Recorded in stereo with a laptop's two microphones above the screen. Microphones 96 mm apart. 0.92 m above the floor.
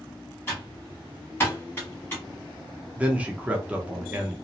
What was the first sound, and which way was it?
Typing on a keyboard, 20° left (ahead or behind).